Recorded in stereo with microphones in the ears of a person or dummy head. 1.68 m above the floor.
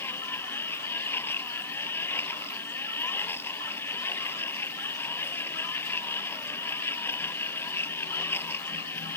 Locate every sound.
0.0 s a machine running: 15° left (ahead or behind)